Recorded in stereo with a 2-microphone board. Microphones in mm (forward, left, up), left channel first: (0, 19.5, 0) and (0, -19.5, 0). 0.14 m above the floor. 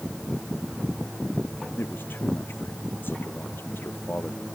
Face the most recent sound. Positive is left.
turn(degrees=75)  # may be behind; listen again after turning